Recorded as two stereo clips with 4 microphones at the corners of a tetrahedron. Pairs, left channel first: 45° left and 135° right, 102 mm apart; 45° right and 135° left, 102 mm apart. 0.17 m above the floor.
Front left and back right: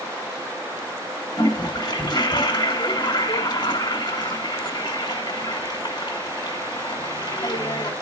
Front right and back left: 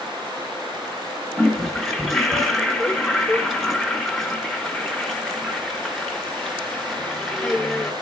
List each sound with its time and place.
1.4 s a toilet flushing: 45° left, 1.9 m